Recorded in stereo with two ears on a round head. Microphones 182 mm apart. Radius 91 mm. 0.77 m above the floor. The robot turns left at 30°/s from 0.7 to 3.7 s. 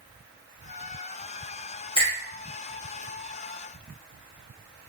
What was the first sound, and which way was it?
A finger snap, 25° left (ahead or behind).